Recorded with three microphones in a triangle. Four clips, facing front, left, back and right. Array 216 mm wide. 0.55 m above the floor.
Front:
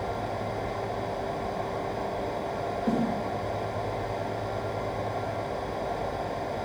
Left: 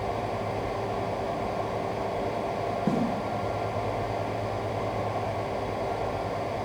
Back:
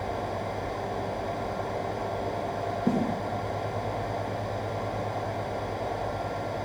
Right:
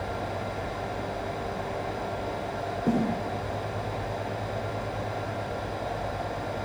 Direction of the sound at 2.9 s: 155° right.